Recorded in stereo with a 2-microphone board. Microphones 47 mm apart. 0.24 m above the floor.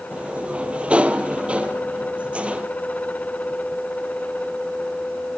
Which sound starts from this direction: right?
A sliding door, at 0.1 s.